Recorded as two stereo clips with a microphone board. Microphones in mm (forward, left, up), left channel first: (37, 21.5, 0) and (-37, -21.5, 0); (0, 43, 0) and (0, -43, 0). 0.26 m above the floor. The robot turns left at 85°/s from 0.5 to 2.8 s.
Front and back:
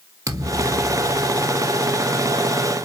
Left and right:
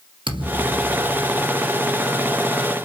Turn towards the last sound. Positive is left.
turn(degrees=65)